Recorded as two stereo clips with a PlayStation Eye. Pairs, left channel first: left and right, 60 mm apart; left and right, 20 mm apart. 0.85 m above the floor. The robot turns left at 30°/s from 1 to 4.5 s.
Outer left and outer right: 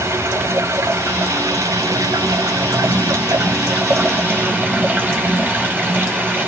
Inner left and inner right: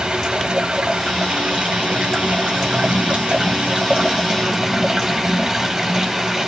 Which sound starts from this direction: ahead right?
Running water, at 0.0 s.